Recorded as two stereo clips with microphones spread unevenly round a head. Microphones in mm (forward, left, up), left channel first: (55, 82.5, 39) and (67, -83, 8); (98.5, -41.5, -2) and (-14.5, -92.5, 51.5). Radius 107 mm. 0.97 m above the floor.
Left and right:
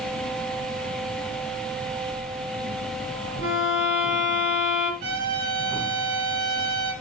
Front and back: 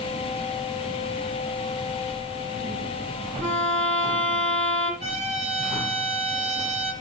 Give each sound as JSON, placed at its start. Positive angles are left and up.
{"t": 3.4, "sound": "a violin", "azimuth_deg": 155, "distance_m": 4.5}
{"t": 5.0, "sound": "a trumpet", "azimuth_deg": -130, "distance_m": 9.5}